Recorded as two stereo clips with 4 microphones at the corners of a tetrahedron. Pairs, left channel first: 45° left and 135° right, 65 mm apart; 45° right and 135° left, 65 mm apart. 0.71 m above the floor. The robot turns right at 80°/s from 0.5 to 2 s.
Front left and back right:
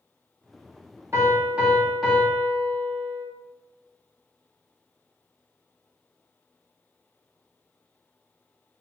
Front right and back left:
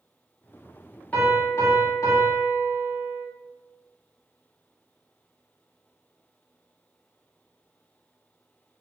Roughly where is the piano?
Right.